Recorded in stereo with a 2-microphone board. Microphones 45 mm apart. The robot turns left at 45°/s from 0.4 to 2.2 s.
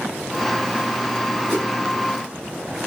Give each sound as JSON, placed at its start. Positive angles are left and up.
{"t": 1.5, "sound": "a whoosh", "side_deg": -40, "distance_m": 2.0}